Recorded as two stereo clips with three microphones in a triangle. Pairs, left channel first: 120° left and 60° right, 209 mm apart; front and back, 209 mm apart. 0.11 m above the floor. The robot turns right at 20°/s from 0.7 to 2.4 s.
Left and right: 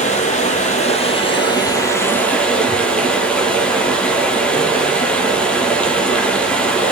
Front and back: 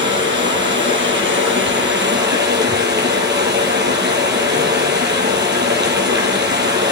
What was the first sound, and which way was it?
Running water, 170° left.